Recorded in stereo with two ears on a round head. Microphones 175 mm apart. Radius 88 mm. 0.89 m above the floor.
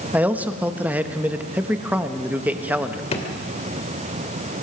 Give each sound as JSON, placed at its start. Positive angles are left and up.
{"t": 0.1, "sound": "a man speaking", "side_deg": -10, "distance_m": 1.0}
{"t": 3.1, "sound": "a drawer", "side_deg": 30, "distance_m": 2.0}